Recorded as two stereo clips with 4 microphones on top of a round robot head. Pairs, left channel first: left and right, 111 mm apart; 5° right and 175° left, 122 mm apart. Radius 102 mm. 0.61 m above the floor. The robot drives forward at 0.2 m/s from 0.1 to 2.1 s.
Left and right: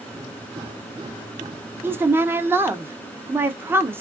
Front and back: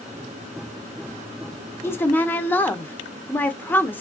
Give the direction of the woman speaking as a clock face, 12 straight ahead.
2 o'clock.